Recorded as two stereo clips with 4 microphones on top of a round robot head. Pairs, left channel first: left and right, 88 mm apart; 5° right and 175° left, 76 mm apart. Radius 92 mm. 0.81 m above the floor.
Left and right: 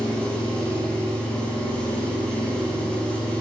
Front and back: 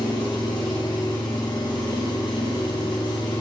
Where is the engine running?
10° left, 5 m.